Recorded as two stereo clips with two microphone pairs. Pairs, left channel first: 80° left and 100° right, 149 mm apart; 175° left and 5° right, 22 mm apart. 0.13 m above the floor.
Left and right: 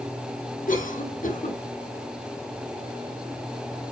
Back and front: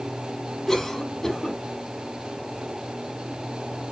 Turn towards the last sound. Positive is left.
turn(degrees=105)